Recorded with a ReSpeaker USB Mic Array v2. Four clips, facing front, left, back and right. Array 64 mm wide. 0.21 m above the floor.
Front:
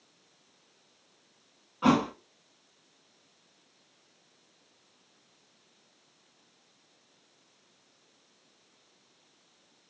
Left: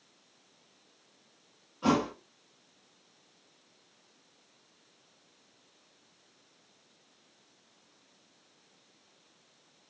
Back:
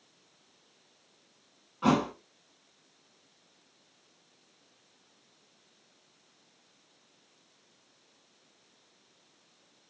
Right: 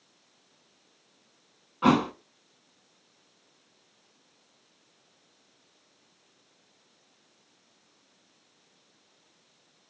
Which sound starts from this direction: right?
A thud, at 1.8 s.